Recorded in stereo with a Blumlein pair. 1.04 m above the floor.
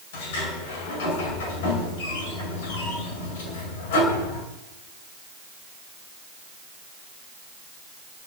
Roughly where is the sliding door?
Ahead left.